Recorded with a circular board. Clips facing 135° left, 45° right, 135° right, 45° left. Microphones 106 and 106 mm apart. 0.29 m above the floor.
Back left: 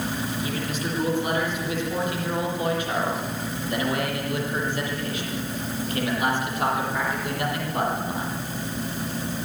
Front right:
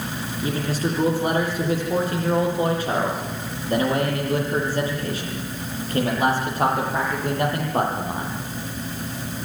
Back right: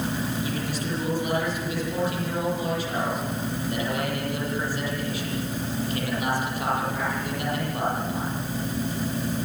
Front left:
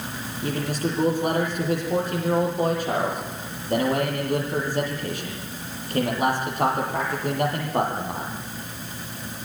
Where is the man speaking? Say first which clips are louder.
Front right 4 dB, front left 3 dB; 5° left, 9.5 m.